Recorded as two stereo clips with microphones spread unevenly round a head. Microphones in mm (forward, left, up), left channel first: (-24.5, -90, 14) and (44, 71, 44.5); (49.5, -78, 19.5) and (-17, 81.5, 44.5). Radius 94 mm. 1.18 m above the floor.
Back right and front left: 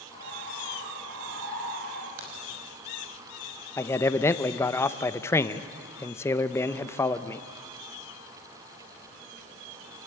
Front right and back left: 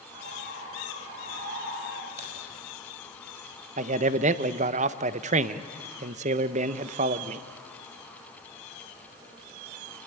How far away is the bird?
About 9.5 m.